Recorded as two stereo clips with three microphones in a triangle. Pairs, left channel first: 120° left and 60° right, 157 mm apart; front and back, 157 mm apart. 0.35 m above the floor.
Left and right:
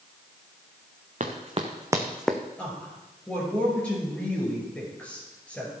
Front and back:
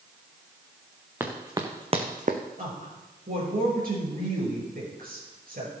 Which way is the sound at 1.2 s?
105° right.